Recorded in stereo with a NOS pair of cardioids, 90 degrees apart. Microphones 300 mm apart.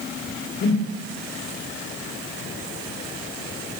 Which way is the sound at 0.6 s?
40° left.